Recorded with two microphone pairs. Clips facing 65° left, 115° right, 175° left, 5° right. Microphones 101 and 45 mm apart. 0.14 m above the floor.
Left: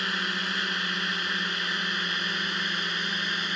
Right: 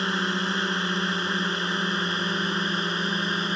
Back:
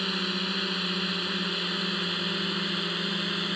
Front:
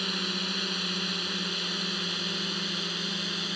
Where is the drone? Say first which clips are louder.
Right 5 dB, back 2 dB; 115° right; by 3.6 s 125° right.